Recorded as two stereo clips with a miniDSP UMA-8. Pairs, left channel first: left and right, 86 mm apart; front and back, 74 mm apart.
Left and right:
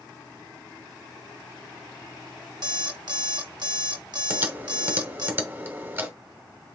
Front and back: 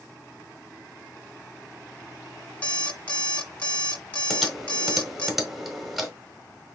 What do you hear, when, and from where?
2.6 s an alarm clock: 70° right, 1.4 m
4.3 s typing on a keyboard: 95° right, 1.3 m